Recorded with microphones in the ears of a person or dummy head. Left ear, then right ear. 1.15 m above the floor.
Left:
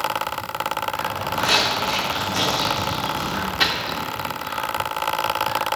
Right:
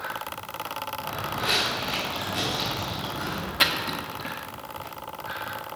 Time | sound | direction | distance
1.0 | footsteps | 5° right (ahead or behind) | 3.5 m
3.6 | a splash | 20° right (ahead or behind) | 0.9 m